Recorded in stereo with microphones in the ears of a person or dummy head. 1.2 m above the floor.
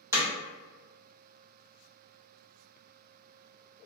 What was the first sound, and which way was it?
Hammering, 10° right (ahead or behind).